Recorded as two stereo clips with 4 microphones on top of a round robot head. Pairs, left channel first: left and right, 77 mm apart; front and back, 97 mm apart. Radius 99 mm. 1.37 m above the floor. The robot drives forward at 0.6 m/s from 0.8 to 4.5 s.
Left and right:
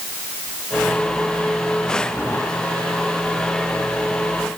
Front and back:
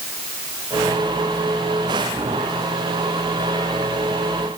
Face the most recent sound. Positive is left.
No sound to turn to.